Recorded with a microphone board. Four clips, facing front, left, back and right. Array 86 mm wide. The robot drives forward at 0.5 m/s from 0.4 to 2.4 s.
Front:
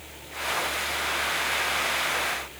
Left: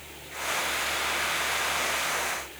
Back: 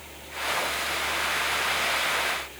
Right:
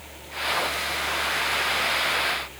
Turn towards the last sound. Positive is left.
No sound to turn to.